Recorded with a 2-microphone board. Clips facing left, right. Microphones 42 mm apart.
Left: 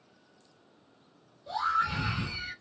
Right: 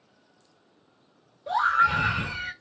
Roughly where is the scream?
Right.